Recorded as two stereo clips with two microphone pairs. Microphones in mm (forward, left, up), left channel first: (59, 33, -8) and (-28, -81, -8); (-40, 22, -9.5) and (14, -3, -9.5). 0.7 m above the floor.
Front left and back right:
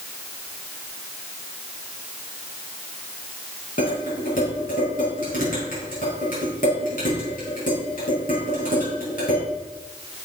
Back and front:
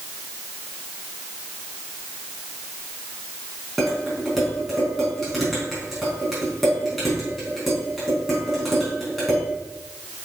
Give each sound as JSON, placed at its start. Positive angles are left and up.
{"t": 3.8, "sound": "dishes clattering", "azimuth_deg": 65, "distance_m": 4.0}